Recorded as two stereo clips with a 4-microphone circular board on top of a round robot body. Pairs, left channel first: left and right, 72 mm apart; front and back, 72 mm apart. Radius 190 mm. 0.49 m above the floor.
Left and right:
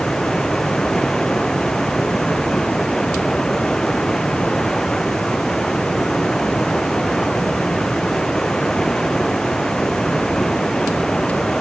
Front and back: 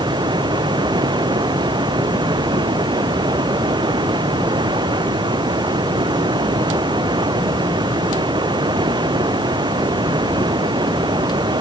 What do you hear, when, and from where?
0.0 s running water: 175° left